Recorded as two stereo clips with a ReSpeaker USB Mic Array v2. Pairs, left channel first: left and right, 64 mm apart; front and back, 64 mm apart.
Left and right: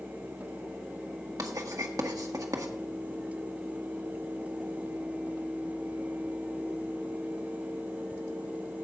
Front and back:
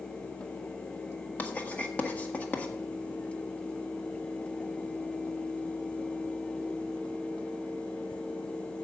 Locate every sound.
1.4 s writing: 65° right, 1.5 m